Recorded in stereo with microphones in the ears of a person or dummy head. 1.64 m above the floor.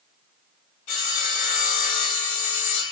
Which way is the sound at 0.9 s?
45° left (ahead or behind).